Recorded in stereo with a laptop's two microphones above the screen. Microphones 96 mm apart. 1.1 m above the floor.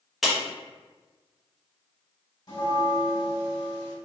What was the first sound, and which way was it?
A clap, centre (ahead or behind).